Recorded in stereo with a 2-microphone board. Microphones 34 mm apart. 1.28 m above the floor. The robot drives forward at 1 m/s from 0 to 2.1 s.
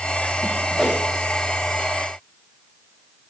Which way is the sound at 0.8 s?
Centre (ahead or behind).